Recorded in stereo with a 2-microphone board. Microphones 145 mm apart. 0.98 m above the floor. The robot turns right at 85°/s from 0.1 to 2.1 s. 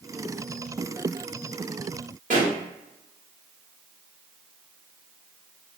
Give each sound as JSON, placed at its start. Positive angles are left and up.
{"t": 2.3, "sound": "a pop", "side_deg": -60, "distance_m": 1.0}